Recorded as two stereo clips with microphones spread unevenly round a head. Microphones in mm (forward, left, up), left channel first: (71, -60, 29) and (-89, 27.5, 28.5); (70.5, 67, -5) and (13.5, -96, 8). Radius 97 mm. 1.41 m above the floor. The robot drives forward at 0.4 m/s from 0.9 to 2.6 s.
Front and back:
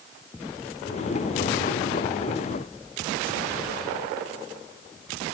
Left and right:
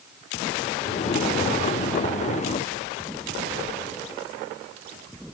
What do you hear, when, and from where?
Only background noise.